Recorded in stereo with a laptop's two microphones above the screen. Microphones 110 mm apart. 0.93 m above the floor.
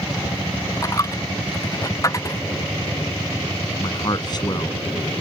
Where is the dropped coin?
30° left (ahead or behind).